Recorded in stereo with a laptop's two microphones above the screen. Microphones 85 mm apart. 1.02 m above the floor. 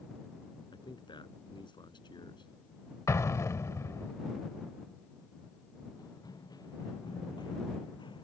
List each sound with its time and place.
0.7 s a man speaking: 60° left (ahead or behind)
3.1 s an explosion: 35° left (ahead or behind)
6.0 s running footsteps: 45° left (ahead or behind); by 8.3 s 65° left (ahead or behind)